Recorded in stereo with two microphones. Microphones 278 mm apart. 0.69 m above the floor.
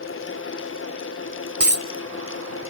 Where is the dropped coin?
60° right (ahead or behind), 0.9 m.